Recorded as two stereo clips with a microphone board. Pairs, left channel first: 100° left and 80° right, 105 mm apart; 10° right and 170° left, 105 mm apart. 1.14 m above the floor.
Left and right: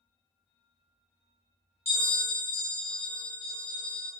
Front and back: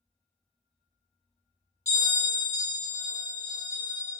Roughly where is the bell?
Ahead left.